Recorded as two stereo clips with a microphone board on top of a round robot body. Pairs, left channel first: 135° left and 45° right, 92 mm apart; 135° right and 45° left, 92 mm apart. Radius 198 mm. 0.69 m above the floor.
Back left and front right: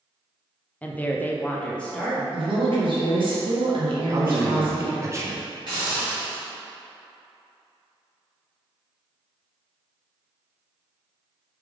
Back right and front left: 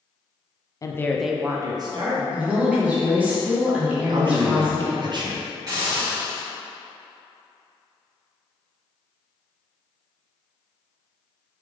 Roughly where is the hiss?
Ahead.